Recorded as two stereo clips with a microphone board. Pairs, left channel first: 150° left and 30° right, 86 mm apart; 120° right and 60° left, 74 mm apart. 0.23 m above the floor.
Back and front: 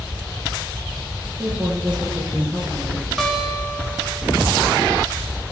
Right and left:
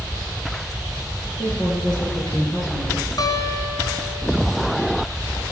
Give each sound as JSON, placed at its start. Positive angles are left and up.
{"t": 1.4, "sound": "a woman speaking", "azimuth_deg": -110, "distance_m": 3.5}
{"t": 3.2, "sound": "a guitar", "azimuth_deg": -125, "distance_m": 1.2}